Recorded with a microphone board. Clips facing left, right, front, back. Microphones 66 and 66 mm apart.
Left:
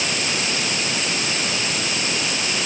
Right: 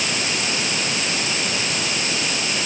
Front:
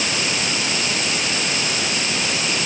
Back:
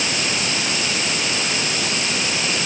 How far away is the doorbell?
No doorbell in this recording.